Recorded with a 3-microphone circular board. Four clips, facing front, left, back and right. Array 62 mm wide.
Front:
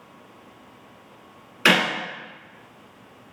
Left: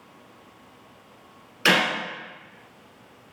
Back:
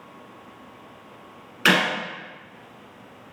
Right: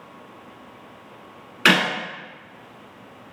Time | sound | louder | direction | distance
1.6 | a clap | right 3 dB, front 1 dB | 80° right | 0.9 m